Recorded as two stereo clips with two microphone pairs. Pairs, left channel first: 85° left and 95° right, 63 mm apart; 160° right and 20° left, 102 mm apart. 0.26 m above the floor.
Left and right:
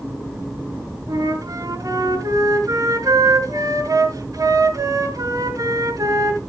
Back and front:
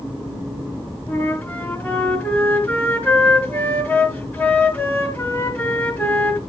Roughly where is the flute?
Right.